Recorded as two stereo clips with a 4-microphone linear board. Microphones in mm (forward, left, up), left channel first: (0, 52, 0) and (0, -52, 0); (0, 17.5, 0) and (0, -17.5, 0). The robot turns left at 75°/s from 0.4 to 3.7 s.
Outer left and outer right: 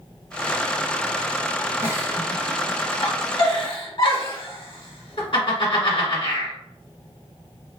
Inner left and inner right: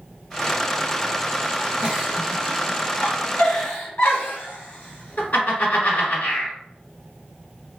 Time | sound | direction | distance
1.8 | a giggle | 25° right (ahead or behind) | 1.2 m